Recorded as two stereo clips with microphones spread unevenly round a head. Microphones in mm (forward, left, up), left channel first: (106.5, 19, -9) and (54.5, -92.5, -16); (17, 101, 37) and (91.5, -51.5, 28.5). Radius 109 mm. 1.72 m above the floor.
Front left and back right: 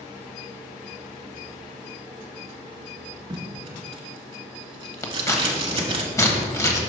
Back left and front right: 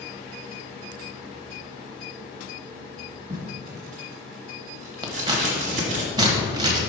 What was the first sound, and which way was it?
Tape being pulled, 105° right.